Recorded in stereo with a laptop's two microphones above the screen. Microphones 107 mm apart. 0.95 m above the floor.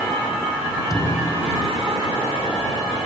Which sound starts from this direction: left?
A thud, at 0.9 s.